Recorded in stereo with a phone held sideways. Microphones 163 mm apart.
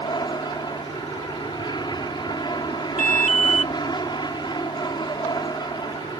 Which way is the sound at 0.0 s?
25° left (ahead or behind).